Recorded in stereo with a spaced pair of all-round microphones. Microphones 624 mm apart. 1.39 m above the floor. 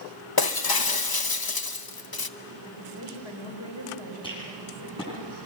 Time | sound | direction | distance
0.4 | breaking glass | 35° left (ahead or behind) | 0.7 m
2.6 | a woman speaking | 40° left (ahead or behind) | 5.5 m
4.2 | a rattle | 10° left (ahead or behind) | 9.5 m